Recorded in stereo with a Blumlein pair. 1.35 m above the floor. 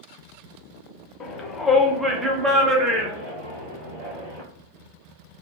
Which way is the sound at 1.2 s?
30° left.